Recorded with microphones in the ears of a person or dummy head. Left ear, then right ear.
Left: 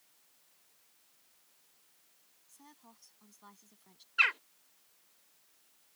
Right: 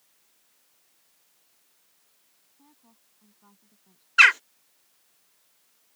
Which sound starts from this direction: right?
A bird, at 4.2 s.